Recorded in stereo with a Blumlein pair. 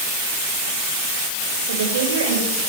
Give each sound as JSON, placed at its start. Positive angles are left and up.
{"t": 1.7, "sound": "a woman speaking", "azimuth_deg": -65, "distance_m": 7.0}